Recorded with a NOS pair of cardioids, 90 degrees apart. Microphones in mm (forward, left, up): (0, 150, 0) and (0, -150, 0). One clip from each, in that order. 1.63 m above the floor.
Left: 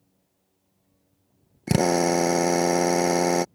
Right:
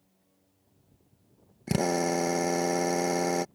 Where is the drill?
40° left.